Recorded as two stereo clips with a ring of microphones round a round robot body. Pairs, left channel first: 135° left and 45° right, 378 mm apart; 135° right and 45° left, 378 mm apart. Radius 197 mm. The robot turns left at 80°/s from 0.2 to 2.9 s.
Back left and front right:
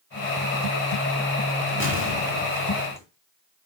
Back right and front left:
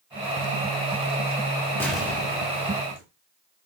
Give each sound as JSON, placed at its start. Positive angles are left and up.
{"t": 1.8, "sound": "an explosion", "azimuth_deg": 145, "distance_m": 1.5}